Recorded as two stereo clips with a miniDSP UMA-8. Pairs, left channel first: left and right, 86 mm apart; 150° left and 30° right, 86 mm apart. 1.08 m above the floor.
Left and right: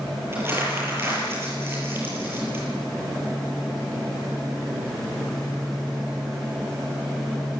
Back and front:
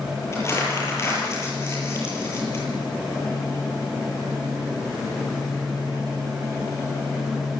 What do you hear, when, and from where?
0.3 s crumpling: 155° right, 9.5 m